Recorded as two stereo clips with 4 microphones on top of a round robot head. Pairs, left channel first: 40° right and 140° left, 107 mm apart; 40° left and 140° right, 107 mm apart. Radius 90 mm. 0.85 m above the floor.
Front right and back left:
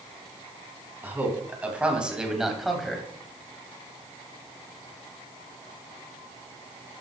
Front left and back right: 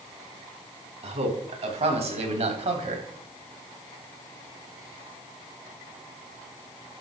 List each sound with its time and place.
1.0 s a man speaking: 150° right, 4 m; by 3.0 s 130° right, 3 m